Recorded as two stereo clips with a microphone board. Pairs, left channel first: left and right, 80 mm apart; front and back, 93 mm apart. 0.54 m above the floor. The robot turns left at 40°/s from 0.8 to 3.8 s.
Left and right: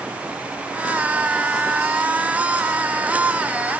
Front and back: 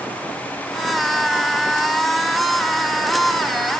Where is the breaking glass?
No breaking glass in this recording.